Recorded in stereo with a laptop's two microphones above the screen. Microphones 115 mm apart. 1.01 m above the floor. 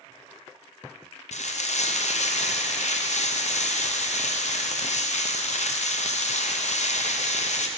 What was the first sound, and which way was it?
Frying, 70° left (ahead or behind).